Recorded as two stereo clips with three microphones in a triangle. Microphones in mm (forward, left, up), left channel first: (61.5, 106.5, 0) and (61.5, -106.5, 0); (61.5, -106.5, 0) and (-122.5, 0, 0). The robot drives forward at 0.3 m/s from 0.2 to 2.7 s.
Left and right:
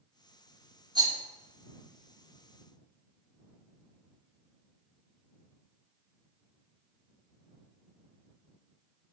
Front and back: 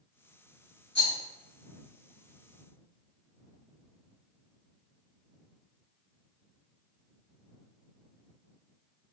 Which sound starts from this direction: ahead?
A rattle, at 0.9 s.